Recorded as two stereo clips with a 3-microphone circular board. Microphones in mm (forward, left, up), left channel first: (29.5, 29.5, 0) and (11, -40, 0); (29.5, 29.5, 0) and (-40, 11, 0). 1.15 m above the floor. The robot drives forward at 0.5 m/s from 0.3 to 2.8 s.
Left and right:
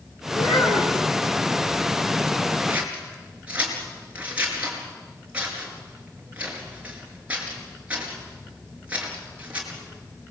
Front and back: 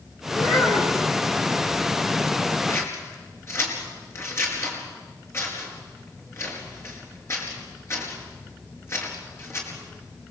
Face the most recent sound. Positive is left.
turn(degrees=-35)